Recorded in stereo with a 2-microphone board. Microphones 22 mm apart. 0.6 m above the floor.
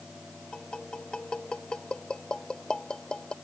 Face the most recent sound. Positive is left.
turn(degrees=40)  # may be behind; listen again after turning